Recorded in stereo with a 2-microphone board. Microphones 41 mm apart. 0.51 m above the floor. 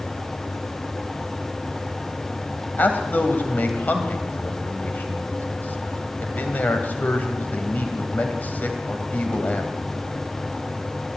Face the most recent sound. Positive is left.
turn(degrees=45)  # may be behind; listen again after turning